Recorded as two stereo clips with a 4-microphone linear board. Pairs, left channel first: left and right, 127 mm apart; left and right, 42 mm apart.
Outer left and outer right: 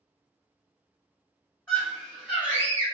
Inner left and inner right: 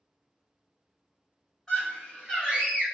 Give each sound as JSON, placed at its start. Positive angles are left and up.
{"t": 1.7, "sound": "a scream", "side_deg": 20, "distance_m": 1.7}